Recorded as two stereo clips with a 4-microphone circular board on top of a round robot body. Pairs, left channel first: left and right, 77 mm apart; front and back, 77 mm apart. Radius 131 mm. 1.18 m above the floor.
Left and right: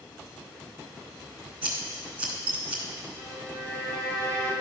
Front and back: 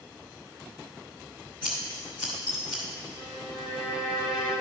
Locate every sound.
1.6 s scissors: 105° right, 1.6 m
3.2 s a violin: 155° left, 2.0 m